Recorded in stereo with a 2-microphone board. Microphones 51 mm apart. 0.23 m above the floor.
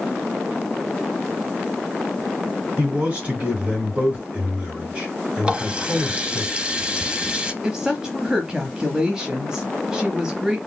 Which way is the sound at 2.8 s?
25° right (ahead or behind).